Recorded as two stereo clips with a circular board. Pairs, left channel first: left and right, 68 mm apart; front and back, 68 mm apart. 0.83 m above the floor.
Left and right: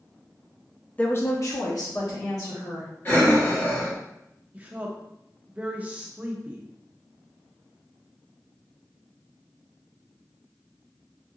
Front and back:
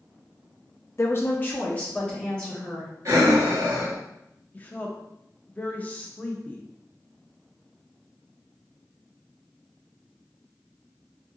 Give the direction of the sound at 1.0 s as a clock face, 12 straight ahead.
11 o'clock.